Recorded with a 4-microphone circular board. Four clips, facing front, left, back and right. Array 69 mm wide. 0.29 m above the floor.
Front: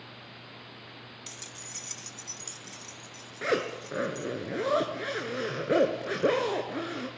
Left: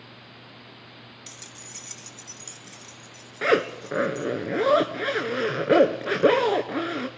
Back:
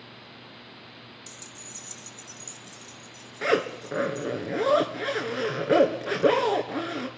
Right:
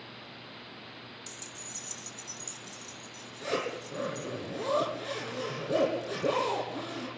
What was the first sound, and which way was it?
Keys jangling, 40° left.